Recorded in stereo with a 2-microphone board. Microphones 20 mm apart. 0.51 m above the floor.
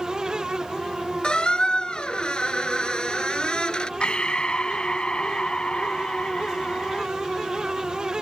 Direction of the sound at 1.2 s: 55° left (ahead or behind).